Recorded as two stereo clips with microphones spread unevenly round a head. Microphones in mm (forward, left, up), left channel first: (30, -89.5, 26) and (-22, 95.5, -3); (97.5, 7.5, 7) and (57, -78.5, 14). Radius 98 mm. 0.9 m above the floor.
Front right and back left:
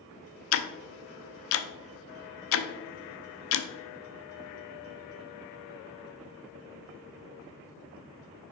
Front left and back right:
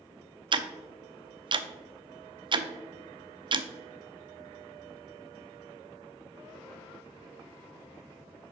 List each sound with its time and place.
0.5 s ticking: 80° right, 0.5 m